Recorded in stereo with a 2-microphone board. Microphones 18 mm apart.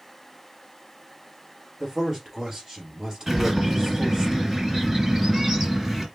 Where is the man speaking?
30° right (ahead or behind), 3 m.